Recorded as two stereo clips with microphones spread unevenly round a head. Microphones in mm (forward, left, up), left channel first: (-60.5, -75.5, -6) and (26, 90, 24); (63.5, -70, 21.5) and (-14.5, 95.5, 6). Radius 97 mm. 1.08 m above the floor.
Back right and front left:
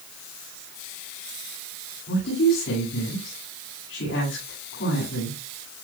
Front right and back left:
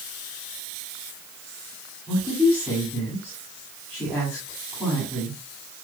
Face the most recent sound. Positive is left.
turn(degrees=-150)